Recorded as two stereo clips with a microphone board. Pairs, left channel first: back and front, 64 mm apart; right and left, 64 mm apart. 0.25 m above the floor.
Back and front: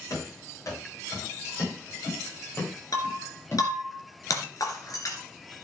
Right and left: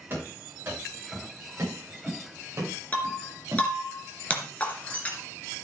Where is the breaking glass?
155° right, 2.5 m.